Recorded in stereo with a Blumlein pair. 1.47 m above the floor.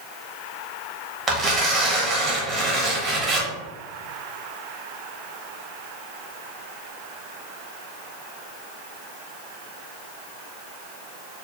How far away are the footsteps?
No footsteps in this recording.